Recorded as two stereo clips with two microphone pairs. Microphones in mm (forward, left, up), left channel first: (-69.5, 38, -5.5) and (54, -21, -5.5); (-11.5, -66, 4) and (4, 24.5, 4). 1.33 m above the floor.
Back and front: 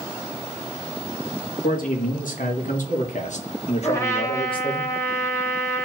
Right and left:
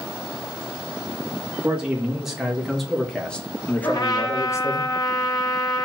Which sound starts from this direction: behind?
A man speaking, at 1.6 s.